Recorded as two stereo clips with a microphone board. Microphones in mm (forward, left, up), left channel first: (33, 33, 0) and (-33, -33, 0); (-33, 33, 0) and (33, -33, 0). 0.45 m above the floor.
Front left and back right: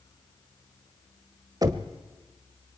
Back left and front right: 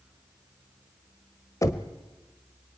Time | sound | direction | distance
1.6 | knocking | 175° right | 1.4 m